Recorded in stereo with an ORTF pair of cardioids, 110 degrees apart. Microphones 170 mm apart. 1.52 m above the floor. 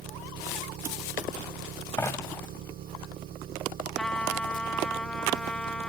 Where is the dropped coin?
15° left.